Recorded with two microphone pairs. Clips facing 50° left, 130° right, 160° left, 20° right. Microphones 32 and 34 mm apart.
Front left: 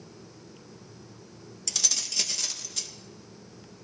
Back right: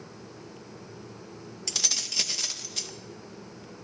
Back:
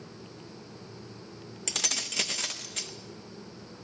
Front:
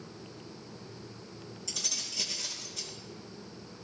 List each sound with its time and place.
1.7 s keys jangling: 155° left, 0.6 m